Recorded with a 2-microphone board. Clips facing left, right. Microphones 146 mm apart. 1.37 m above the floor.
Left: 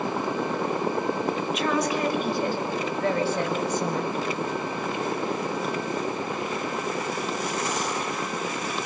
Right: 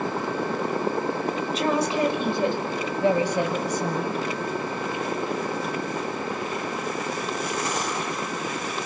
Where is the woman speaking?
35° right (ahead or behind), 5.5 m; by 4.2 s 10° right (ahead or behind), 7 m.